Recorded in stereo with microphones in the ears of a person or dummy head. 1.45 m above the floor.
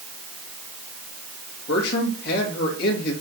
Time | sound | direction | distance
1.7 | a man speaking | 55° left (ahead or behind) | 3 m